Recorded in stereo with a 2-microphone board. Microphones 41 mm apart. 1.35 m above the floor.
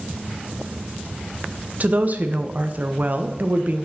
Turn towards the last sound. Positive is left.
turn(degrees=-45)  # may be behind; listen again after turning